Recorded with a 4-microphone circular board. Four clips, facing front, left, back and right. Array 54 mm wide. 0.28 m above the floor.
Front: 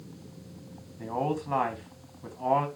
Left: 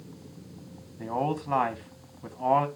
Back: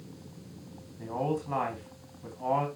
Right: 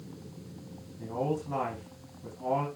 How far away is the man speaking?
About 2.5 m.